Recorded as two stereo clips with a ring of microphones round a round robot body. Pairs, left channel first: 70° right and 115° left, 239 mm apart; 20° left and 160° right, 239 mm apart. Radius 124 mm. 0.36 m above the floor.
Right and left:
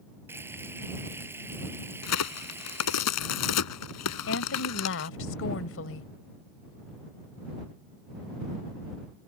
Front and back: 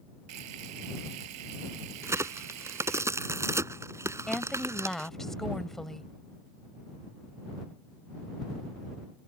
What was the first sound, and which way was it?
Frying, 165° right.